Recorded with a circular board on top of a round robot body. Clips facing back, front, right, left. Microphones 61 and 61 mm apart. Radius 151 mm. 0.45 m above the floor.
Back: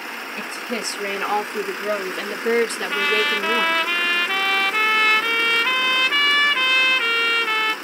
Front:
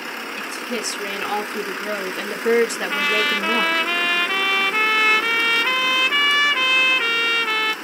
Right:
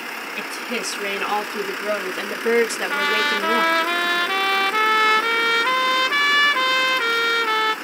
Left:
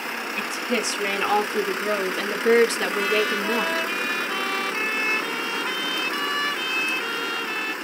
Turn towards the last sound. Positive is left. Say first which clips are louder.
# even, right 2 dB
turn(degrees=-85)